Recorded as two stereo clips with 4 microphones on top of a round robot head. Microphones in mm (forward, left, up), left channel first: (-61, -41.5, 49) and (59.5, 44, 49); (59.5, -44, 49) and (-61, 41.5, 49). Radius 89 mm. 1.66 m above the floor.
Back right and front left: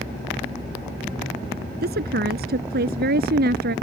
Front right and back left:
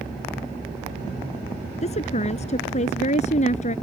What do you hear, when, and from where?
1.8 s a woman speaking: 15° left; by 3.7 s 10° left